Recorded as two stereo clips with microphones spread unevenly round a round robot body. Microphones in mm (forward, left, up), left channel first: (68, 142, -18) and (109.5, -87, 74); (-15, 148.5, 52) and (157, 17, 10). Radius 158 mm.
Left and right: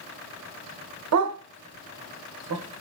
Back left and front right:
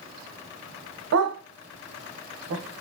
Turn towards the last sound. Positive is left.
turn(degrees=-60)